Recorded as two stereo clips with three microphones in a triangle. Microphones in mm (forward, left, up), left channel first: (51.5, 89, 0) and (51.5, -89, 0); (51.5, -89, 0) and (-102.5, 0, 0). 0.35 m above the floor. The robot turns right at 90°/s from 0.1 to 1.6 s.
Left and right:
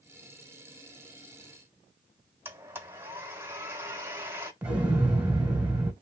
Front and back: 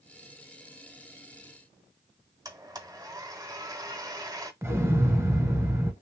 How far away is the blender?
About 1.0 m.